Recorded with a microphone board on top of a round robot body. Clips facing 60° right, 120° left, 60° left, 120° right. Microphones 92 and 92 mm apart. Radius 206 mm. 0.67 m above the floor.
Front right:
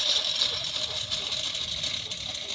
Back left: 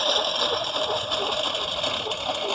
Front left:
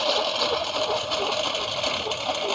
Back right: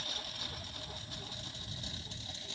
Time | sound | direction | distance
0.0 | a lawn mower | 75° left | ?